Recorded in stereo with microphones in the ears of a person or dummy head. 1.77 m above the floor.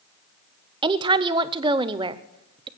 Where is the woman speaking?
25° right (ahead or behind), 0.6 m.